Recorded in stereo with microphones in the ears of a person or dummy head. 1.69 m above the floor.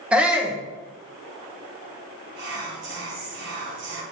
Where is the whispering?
55° right (ahead or behind), 1.9 m.